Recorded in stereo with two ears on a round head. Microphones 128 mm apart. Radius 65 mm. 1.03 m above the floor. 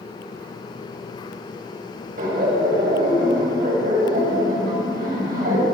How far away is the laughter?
About 5.5 m.